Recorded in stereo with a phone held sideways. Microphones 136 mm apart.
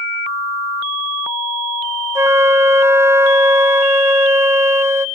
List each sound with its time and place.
2.1 s a flute: 20° right (ahead or behind), 0.8 m